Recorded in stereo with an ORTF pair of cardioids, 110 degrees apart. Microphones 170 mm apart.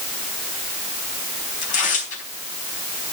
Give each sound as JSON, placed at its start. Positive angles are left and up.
{"t": 1.6, "sound": "tearing paper", "azimuth_deg": 55, "distance_m": 4.5}